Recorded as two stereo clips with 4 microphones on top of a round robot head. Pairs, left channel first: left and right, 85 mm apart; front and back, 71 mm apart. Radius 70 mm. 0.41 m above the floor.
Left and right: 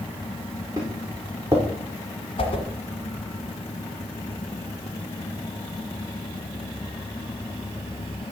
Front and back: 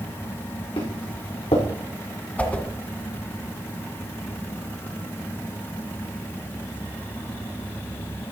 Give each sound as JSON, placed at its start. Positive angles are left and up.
{"t": 0.8, "sound": "footsteps", "azimuth_deg": -25, "distance_m": 4.5}
{"t": 2.4, "sound": "a whoosh", "azimuth_deg": 65, "distance_m": 1.5}